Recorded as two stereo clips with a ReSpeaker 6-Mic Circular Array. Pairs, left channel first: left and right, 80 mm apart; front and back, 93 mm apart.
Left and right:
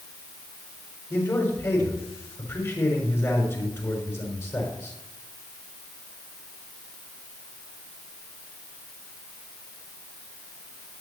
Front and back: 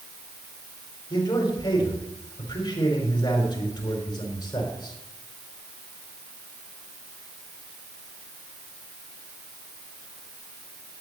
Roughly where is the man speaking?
Ahead left.